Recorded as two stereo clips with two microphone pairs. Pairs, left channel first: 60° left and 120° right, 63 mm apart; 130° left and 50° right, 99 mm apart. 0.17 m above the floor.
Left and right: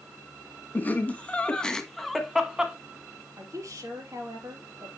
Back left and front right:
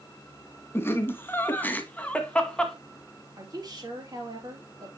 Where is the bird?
No bird in this recording.